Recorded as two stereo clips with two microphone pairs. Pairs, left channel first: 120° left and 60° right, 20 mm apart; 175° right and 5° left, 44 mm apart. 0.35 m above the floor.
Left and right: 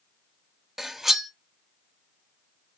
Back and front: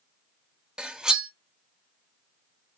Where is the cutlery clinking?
25° right, 0.6 m.